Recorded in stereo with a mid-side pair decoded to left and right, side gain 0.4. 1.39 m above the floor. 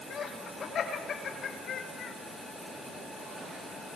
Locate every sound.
0.1 s laughter: 60° left, 8.5 m; by 2.2 s 70° left, 6 m